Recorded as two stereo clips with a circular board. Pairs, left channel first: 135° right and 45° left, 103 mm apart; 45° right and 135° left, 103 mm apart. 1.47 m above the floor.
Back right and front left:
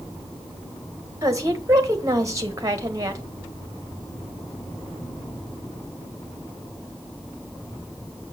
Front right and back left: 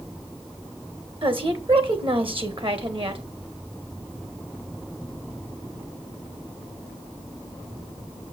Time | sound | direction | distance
1.2 | a woman speaking | 100° left | 1.5 m